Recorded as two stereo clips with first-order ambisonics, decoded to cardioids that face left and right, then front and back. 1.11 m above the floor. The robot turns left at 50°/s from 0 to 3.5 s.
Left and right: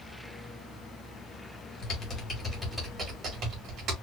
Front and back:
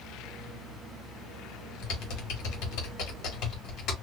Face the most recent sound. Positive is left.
turn(degrees=-50)